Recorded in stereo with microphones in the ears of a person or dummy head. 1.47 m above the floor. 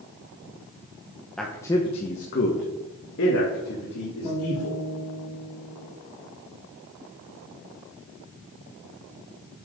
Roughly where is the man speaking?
Centre.